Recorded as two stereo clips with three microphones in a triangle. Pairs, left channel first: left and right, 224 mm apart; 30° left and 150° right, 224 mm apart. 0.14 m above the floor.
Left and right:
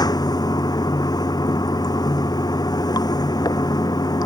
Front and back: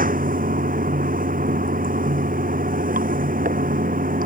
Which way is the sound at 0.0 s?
160° left.